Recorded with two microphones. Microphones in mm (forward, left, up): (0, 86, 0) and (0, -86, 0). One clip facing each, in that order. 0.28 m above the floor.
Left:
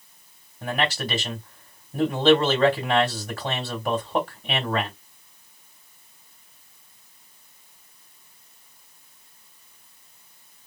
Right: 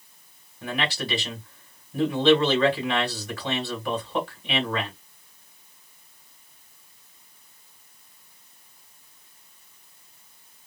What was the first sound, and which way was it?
A man speaking, 45° left (ahead or behind).